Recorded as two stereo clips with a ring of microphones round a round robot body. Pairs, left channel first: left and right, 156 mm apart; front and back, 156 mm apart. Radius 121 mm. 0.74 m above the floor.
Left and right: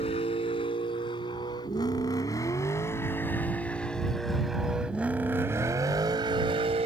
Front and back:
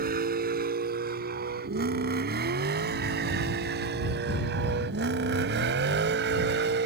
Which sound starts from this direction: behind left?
A vehicle, at 0.0 s.